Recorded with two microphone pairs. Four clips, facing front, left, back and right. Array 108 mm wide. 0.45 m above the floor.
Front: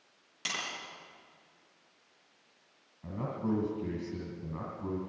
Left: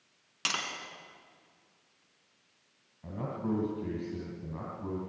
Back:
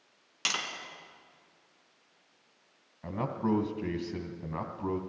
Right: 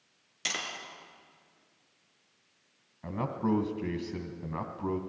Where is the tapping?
130° left, 3.5 m.